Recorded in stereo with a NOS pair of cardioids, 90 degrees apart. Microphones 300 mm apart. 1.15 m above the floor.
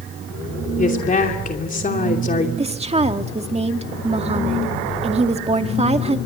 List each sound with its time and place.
0.8 s a woman speaking: 25° left, 2.5 m
2.6 s a woman speaking: 20° right, 1.9 m